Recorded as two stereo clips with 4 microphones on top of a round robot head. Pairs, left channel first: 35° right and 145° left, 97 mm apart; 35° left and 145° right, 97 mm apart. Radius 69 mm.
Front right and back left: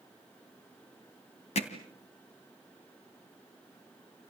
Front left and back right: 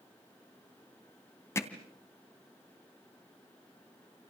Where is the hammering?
30° right, 2.5 m.